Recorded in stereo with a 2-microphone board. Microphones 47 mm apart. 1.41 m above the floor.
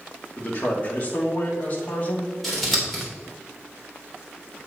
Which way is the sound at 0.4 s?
35° left (ahead or behind).